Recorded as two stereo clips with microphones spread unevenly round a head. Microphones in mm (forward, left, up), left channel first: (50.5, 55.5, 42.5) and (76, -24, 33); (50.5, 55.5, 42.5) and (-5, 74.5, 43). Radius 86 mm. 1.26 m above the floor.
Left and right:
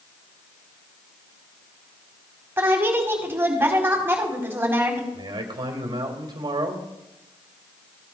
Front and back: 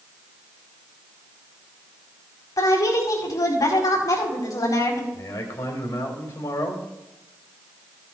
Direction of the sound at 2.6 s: 10° right.